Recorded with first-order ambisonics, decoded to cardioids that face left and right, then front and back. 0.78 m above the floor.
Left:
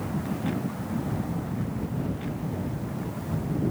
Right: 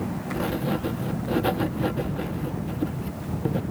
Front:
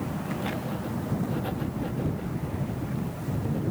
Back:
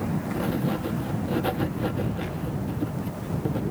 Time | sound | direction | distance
0.3 | writing | 115° right | ?